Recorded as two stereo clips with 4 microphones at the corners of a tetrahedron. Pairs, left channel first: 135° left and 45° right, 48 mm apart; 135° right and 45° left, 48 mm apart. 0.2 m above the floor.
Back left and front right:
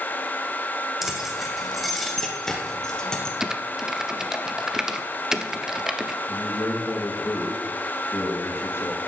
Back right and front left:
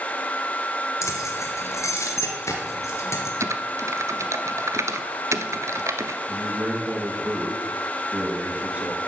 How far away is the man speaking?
About 4 m.